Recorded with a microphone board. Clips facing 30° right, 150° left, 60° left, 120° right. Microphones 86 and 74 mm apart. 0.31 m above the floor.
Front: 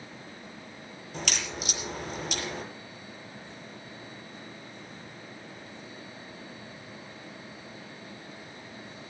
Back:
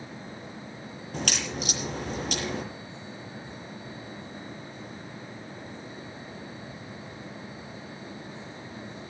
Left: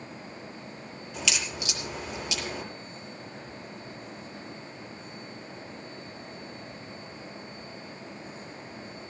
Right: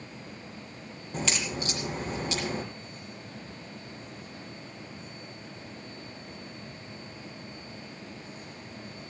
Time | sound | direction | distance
1.1 | a crack | 170° right | 6 m